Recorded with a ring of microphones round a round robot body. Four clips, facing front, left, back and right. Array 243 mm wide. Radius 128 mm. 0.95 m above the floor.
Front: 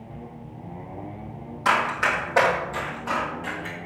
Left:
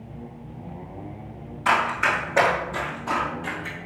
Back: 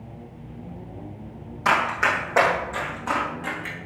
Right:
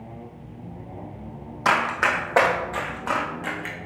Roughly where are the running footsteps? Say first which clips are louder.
Even, back 1 dB; right.